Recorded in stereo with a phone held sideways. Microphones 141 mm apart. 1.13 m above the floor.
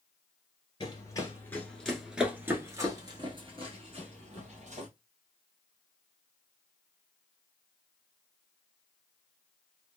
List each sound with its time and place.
0.8 s running footsteps: 30° left (ahead or behind), 1.2 m; by 4.9 s 55° right (ahead or behind), 1.9 m